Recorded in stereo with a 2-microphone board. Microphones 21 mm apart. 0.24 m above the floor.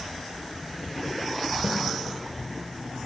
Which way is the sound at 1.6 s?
45° right (ahead or behind).